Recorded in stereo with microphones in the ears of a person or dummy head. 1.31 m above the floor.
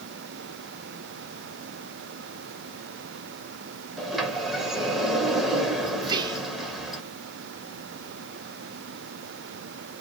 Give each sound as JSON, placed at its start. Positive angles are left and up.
{"t": 4.0, "sound": "a sliding door", "side_deg": 5, "distance_m": 1.1}
{"t": 6.0, "sound": "whispering", "side_deg": -25, "distance_m": 0.8}